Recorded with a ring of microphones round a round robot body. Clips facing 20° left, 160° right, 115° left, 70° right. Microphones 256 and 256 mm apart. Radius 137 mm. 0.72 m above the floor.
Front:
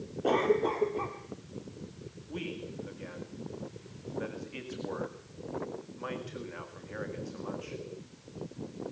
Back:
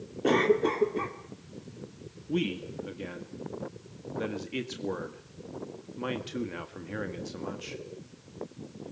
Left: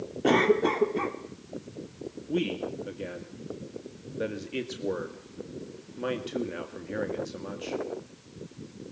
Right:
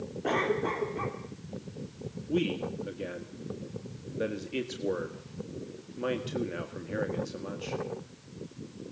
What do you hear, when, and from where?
0.2 s a cough: 145° left, 1.9 m
2.3 s a man speaking: 155° right, 1.8 m